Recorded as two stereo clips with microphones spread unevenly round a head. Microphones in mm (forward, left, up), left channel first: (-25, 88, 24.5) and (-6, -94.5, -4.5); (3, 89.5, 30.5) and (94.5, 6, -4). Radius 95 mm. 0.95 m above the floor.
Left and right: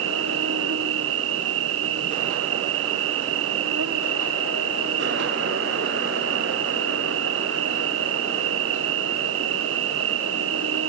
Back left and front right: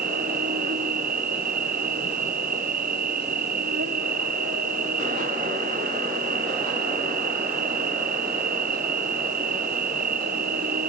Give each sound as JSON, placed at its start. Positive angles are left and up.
{"t": 0.0, "sound": "an insect", "azimuth_deg": -60}